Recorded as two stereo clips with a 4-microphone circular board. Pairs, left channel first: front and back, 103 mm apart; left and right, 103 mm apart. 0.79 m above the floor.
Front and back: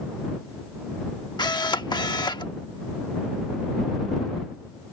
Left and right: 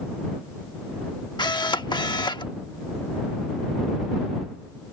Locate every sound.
1.4 s a camera shutter: 45° left